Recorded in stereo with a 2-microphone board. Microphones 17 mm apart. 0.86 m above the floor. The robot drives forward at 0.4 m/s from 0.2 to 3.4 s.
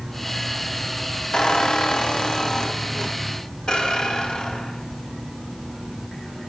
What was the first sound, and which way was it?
A squeak, 60° left (ahead or behind).